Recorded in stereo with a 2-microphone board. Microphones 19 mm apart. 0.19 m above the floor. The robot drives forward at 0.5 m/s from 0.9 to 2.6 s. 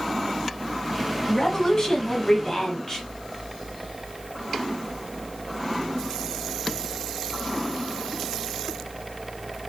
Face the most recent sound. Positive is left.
turn(degrees=25)  # may be behind; listen again after turning